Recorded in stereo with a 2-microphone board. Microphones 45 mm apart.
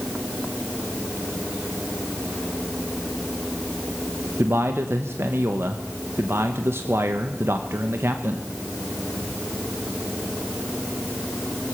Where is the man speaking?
65° right (ahead or behind), 1.0 m.